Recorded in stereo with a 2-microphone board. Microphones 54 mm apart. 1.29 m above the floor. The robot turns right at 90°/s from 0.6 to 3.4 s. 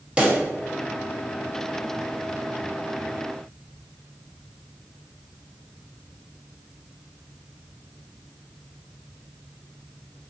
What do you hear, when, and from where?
0.2 s a pop: 20° right (ahead or behind), 0.6 m